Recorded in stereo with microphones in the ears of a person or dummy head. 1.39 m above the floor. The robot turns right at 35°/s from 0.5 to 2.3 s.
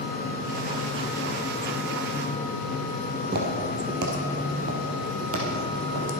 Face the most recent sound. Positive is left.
turn(degrees=-50)  # may be behind; listen again after turning